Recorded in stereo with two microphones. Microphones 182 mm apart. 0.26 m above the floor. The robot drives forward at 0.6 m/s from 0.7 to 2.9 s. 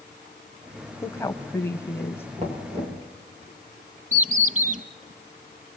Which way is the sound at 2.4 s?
35° right (ahead or behind).